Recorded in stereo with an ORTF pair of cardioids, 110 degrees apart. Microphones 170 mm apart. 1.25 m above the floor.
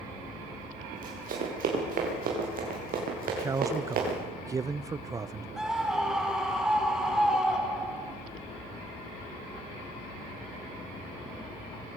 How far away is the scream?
About 4 m.